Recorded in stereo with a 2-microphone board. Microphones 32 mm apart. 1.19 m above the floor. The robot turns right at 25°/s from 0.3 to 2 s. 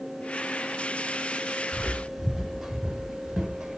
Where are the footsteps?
5° left (ahead or behind), 1.6 m; by 3.8 s 15° right (ahead or behind), 1.4 m.